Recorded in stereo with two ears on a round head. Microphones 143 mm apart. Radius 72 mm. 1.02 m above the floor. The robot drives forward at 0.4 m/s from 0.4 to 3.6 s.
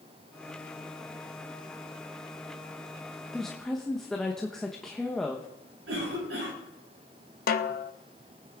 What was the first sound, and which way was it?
A woman speaking, 5° left (ahead or behind).